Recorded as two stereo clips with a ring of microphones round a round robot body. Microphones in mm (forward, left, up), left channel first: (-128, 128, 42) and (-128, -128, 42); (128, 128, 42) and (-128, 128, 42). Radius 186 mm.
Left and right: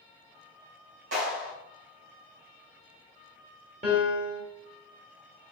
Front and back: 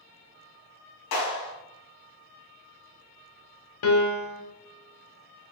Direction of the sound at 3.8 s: 15° right.